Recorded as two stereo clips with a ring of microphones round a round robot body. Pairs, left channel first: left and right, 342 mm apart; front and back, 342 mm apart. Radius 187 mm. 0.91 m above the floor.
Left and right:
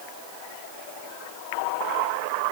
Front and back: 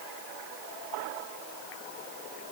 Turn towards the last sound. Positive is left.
No sound to turn to.